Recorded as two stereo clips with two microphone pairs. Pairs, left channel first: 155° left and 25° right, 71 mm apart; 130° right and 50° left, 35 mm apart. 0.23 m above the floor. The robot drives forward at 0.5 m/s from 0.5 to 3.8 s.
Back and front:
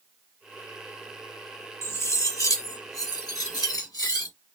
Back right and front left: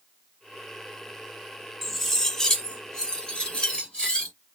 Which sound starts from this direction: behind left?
Cutlery clinking, at 1.8 s.